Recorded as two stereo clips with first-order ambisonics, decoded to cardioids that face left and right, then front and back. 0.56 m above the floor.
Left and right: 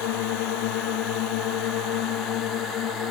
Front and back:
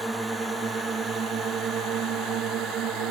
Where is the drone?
100° left; by 3.1 s 140° left.